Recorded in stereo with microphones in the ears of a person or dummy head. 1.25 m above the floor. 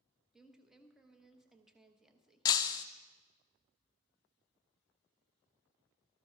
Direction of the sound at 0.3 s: 5° right (ahead or behind).